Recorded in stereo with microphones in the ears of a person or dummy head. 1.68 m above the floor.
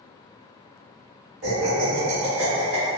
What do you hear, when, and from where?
1.4 s laughter: 70° right (ahead or behind), 1.8 m